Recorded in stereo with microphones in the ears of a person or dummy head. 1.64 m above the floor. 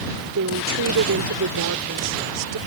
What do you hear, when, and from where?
0.3 s a woman speaking: 65° right (ahead or behind)